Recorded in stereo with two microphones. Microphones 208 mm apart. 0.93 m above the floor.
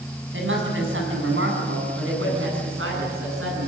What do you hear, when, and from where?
0.3 s a woman speaking: 70° right (ahead or behind), 7.5 m; by 3.7 s 85° right, 10.5 m